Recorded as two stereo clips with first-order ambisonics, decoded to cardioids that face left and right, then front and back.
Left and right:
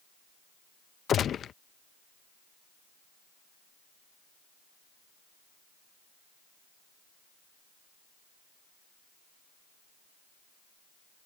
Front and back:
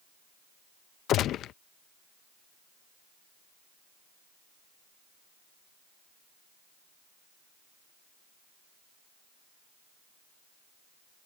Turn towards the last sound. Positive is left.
turn(degrees=35)